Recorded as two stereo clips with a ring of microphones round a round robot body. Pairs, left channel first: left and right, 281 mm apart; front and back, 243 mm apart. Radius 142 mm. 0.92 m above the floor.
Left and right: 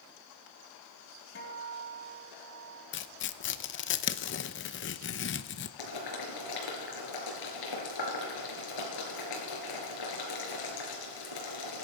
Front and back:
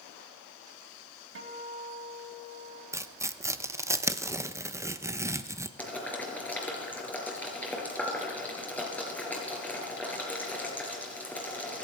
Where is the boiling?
85° left, 4 m.